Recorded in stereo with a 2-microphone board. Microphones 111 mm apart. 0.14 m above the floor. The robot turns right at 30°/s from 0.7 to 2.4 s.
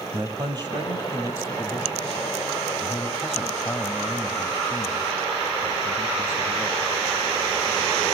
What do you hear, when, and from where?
0.1 s a man speaking: 40° right, 3.5 m; by 6.9 s 10° left, 3.5 m